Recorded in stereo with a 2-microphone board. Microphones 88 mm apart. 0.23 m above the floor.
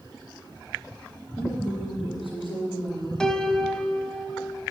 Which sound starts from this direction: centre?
A piano, at 3.2 s.